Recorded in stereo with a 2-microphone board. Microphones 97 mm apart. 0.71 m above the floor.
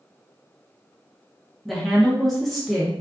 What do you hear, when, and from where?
1.6 s a woman speaking: centre (ahead or behind), 0.8 m